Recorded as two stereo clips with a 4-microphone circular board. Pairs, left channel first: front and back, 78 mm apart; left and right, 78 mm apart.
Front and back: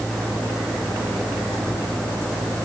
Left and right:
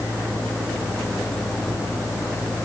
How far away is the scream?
I don't hear a scream.